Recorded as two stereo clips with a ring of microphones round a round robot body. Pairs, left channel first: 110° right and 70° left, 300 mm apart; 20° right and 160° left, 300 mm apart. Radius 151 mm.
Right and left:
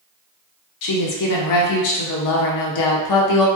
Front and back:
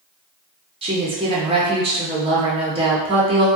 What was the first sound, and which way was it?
A woman speaking, 130° right.